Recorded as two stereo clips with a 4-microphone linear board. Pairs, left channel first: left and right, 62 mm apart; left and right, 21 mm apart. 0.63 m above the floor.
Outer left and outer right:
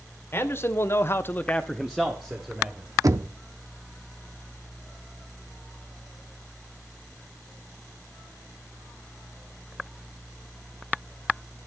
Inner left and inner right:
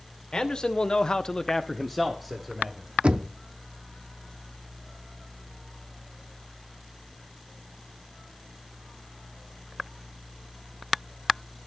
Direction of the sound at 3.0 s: 60° right (ahead or behind).